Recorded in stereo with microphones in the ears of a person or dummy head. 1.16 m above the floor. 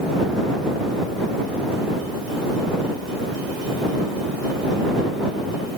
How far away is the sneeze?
I don't hear a sneeze.